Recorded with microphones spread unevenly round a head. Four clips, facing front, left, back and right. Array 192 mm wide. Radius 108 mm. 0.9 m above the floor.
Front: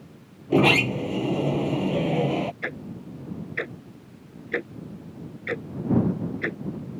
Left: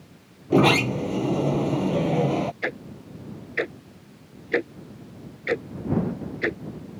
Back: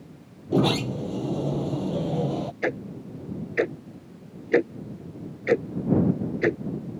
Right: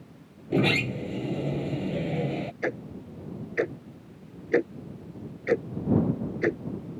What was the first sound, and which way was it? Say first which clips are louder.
A sliding door: left 7 dB, front 3 dB; 40° left.